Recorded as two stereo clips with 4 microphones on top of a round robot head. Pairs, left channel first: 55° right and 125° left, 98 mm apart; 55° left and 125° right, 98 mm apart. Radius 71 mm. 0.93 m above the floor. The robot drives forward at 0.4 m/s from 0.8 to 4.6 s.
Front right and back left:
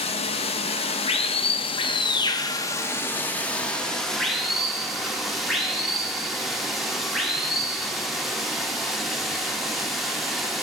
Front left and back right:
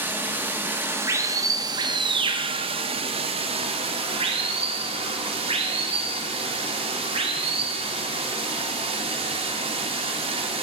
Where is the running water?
55° right, 0.9 m; by 10.6 s 150° right, 1.3 m.